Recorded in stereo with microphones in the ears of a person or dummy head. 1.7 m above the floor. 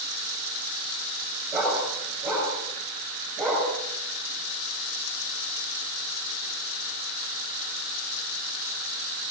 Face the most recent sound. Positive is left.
turn(degrees=-25)  # may be behind; listen again after turning